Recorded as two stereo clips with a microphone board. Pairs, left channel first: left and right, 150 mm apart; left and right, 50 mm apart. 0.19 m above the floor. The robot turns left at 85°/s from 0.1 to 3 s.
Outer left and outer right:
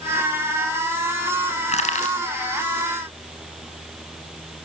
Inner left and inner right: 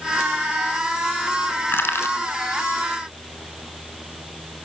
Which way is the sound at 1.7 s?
45° left (ahead or behind).